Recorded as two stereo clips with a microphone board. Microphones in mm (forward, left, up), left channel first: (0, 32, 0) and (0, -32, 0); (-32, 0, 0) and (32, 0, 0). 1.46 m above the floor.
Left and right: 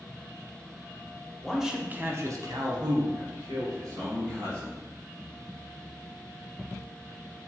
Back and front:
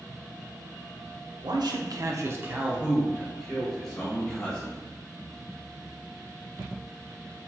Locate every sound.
1.4 s a man speaking: 5° left, 0.7 m; by 4.8 s 105° right, 2 m